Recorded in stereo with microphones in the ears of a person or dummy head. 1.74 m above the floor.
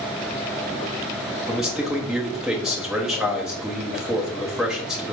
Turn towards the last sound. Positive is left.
turn(degrees=-5)  # may be behind; listen again after turning